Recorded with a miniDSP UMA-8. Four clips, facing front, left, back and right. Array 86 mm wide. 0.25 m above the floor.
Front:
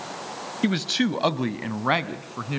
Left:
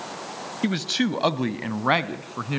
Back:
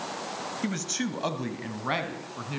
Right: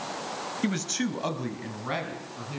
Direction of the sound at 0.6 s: 20° left.